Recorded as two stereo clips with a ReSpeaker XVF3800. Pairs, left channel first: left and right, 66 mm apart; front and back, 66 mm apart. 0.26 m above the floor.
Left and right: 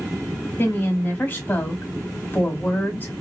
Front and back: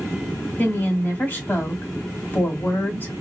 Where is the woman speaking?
40° left, 1.6 m.